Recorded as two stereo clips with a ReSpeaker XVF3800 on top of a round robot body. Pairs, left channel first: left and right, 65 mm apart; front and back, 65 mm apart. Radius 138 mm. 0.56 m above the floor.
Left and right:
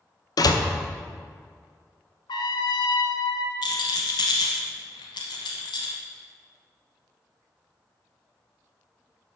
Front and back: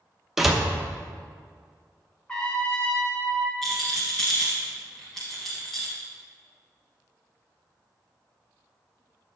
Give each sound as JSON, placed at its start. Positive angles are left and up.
{"t": 0.4, "sound": "a door slam", "azimuth_deg": 95, "distance_m": 0.9}
{"t": 2.3, "sound": "a trumpet", "azimuth_deg": 80, "distance_m": 0.9}
{"t": 3.6, "sound": "a rattle", "azimuth_deg": 90, "distance_m": 0.8}